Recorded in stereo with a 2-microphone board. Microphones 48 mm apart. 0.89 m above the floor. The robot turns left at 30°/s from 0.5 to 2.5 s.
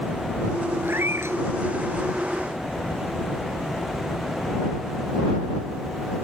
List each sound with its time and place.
0.8 s a cat meowing: 45° right (ahead or behind); by 1.4 s 65° right (ahead or behind)